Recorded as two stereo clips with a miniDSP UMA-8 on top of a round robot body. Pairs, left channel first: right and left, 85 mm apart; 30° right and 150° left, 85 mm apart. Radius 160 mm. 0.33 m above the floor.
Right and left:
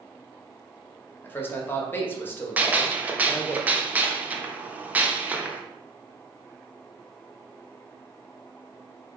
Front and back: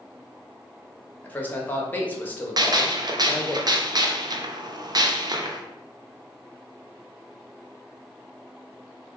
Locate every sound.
1.2 s a man speaking: 70° right, 1.1 m
2.6 s a gunshot: 155° left, 0.7 m